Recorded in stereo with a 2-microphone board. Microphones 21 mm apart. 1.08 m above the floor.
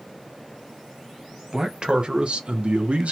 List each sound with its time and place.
1.5 s a man speaking: 35° right (ahead or behind), 1.0 m; by 3.1 s 85° right, 0.7 m